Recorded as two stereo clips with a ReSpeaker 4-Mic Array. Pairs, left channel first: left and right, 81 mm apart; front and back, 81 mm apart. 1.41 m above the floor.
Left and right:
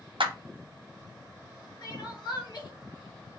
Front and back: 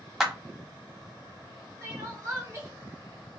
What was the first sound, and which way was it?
A clap, 95° right.